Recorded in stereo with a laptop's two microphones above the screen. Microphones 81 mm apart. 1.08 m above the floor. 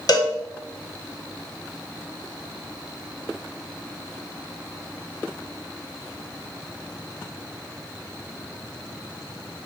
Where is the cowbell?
55° left (ahead or behind), 0.5 m.